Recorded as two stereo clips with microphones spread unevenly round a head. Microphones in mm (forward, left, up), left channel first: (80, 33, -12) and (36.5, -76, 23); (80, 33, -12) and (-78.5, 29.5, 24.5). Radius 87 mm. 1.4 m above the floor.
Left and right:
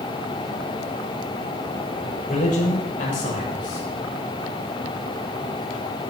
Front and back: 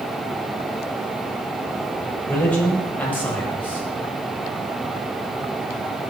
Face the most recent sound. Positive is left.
turn(degrees=80)